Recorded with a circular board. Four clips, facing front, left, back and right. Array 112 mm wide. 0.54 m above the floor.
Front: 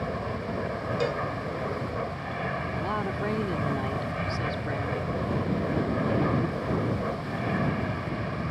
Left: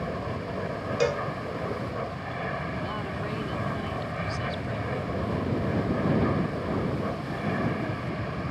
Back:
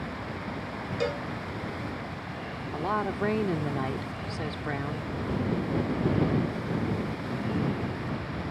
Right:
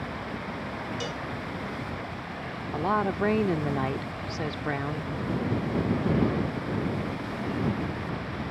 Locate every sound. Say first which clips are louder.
0.0 s an aircraft: left 3 dB, front 4 dB; 40° left
1.0 s a cowbell: left 9 dB, front 1 dB; 90° left
2.7 s a woman speaking: right 6 dB, back 6 dB; 105° right